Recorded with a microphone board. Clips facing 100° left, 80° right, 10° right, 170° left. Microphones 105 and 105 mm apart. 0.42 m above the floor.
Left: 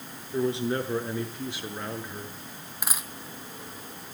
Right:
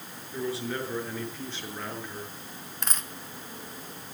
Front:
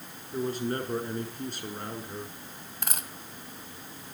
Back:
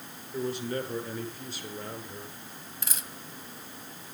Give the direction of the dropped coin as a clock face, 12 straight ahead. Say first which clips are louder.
Left 1 dB, front 5 dB; 11 o'clock.